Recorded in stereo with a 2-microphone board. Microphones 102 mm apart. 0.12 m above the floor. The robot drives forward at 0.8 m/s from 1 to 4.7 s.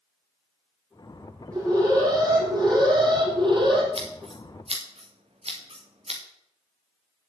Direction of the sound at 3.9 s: 70° right (ahead or behind).